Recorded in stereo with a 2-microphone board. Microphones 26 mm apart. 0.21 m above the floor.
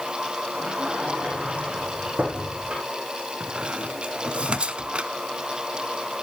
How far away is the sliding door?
About 6.5 m.